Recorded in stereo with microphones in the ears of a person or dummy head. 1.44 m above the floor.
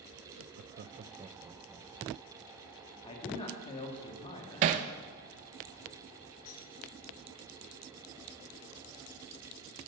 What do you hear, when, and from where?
0.4 s laughter: 65° right (ahead or behind), 0.6 m; by 2.5 s centre (ahead or behind), 1.9 m
3.0 s a man speaking: 30° left (ahead or behind), 2.5 m
4.6 s hammering: 40° right (ahead or behind), 0.7 m
6.5 s cutlery clinking: 80° left, 4.5 m